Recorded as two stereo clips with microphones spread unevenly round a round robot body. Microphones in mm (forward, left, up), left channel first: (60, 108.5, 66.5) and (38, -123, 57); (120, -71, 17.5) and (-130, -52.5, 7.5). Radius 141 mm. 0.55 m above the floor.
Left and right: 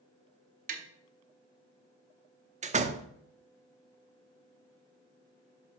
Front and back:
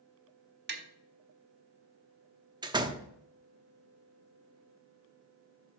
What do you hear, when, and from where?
0.7 s tapping: 140° right, 1.4 m
2.6 s a door slam: 125° right, 0.8 m